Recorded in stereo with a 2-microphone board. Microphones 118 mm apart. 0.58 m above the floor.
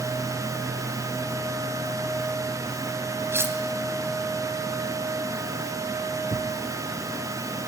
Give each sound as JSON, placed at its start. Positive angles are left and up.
{"t": 3.3, "sound": "cutlery clinking", "side_deg": -20, "distance_m": 2.0}
{"t": 6.3, "sound": "a thud", "side_deg": -75, "distance_m": 2.0}